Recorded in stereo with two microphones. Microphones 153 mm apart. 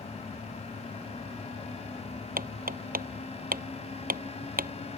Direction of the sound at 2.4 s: 70° right (ahead or behind).